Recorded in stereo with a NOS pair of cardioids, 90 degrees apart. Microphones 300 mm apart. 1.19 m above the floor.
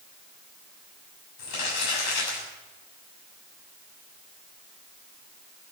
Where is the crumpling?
65° left, 7 m.